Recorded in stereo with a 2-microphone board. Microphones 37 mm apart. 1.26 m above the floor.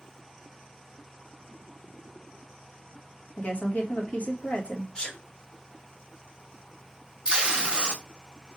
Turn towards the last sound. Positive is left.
turn(degrees=-25)  # may be behind; listen again after turning